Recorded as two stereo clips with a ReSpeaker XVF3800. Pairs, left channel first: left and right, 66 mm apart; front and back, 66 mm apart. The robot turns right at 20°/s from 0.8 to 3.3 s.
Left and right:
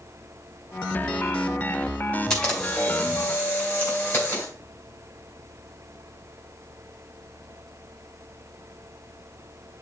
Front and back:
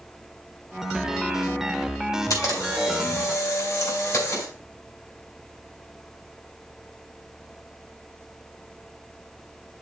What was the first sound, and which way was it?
A camera shutter, 10° left.